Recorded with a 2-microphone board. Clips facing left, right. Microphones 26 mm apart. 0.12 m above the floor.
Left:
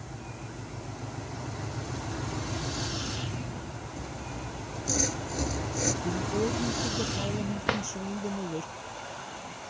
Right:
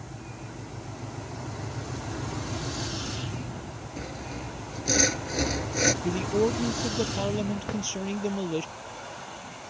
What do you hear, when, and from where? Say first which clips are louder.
4.0 s sawing: right 4 dB; 40° right (ahead or behind)
6.0 s a man speaking: right 4 dB; 45° right (ahead or behind)
7.7 s a drawer: left 3 dB; 50° left (ahead or behind)